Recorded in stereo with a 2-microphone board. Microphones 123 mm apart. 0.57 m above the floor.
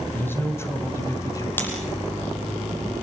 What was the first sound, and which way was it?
A man speaking, 15° left (ahead or behind).